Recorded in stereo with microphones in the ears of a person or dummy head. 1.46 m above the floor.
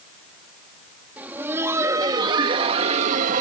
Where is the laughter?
10° right (ahead or behind); by 3.4 s 50° right (ahead or behind).